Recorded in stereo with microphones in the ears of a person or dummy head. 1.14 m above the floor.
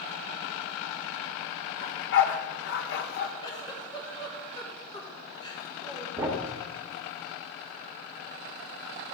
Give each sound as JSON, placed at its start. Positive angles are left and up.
{"t": 1.8, "sound": "a dog barking", "side_deg": 50, "distance_m": 0.9}
{"t": 3.4, "sound": "a giggle", "side_deg": 25, "distance_m": 1.3}
{"t": 6.2, "sound": "a thud", "side_deg": -15, "distance_m": 0.9}